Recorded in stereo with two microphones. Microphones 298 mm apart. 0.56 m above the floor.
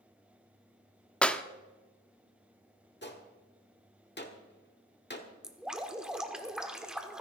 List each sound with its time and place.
1.2 s a clap: 5° left (ahead or behind), 0.6 m
3.0 s a gunshot: 35° left (ahead or behind), 1.3 m
5.4 s dripping: centre (ahead or behind), 1.2 m